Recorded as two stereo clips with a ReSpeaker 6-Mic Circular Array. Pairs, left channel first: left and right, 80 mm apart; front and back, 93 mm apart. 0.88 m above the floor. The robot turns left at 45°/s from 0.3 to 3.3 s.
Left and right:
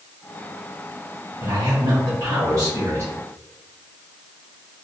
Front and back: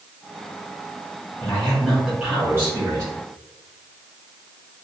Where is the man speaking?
70° right, 1.5 m; by 3.1 s 145° right, 1.5 m.